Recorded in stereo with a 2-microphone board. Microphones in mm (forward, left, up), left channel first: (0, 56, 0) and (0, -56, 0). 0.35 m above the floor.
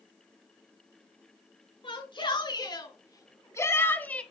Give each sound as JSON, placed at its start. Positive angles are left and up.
{"t": 1.8, "sound": "a shout", "side_deg": 45, "distance_m": 4.0}